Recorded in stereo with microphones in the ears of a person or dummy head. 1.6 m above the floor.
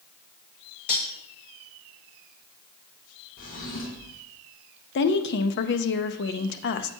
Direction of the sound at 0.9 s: 45° left (ahead or behind).